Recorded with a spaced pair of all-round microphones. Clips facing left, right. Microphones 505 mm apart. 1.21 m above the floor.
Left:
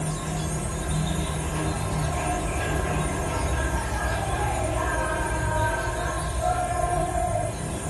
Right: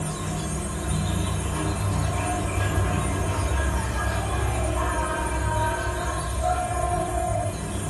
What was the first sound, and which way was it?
An insect, 35° right (ahead or behind).